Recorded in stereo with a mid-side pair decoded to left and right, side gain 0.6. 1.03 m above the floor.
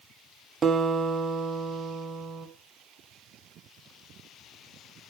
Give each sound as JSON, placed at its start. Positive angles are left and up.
{"t": 0.6, "sound": "a guitar", "azimuth_deg": -35, "distance_m": 1.6}